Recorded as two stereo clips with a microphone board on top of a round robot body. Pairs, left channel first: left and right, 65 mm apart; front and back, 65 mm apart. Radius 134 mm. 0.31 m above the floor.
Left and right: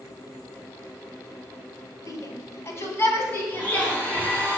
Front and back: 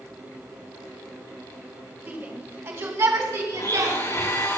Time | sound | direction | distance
2.1 | a shout | 120° left | 2.5 m
3.5 | a blender | 30° left | 8.5 m